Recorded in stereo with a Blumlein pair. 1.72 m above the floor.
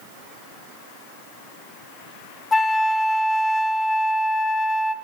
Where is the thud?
No thud in this recording.